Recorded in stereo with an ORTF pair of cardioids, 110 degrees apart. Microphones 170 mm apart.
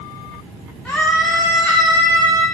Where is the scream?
5° left, 1.6 m; by 2.5 s 20° right, 2 m.